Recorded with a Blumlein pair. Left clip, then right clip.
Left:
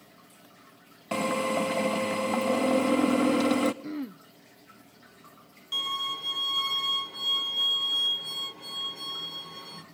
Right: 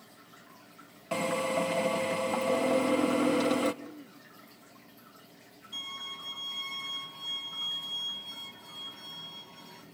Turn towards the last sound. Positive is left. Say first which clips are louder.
# left 9 dB
turn(degrees=40)